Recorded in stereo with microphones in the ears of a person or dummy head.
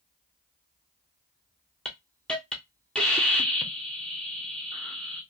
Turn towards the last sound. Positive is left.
turn(degrees=5)  # may be behind; listen again after turning